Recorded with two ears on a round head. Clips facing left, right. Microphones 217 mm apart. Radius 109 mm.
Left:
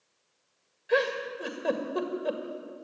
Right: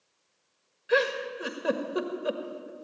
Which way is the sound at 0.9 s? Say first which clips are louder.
Right 1 dB; 10° right (ahead or behind).